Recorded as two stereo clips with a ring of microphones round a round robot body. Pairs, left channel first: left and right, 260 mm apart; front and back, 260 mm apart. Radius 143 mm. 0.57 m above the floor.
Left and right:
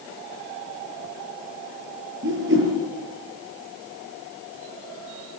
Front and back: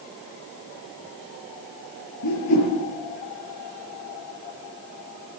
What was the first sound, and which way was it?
A whoosh, 35° right.